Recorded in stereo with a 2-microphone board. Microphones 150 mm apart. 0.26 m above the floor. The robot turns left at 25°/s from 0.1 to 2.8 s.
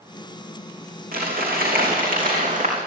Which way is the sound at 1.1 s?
85° right.